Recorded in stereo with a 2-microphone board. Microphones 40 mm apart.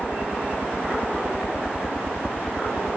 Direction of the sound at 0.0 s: 60° left (ahead or behind).